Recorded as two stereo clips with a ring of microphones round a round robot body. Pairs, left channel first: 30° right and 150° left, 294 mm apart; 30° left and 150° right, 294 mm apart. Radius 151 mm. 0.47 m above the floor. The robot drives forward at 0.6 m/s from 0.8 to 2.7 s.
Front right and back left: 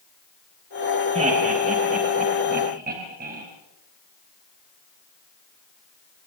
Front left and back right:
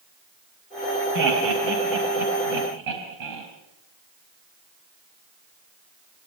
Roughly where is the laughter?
Behind right.